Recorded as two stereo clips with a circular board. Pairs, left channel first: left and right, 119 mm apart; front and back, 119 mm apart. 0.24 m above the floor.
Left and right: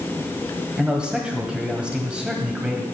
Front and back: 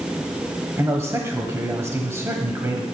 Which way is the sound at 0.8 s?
160° right.